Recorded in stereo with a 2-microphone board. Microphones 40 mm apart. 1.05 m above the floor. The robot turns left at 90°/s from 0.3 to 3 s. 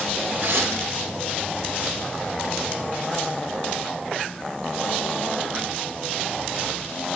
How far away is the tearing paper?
About 4 m.